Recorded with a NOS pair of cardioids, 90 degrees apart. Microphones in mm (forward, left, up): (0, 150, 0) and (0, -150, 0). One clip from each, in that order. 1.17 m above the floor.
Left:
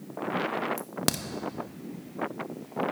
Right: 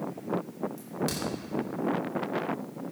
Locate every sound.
0.8 s a crack: 70° left, 1.0 m